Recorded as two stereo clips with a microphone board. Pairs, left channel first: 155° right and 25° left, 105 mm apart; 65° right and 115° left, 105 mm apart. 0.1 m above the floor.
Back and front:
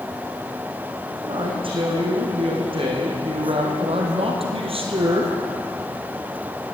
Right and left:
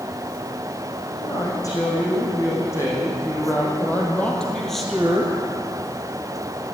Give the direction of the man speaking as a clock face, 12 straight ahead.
12 o'clock.